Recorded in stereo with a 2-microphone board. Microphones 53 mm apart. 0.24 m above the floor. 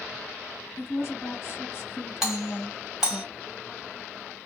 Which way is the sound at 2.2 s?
10° right (ahead or behind).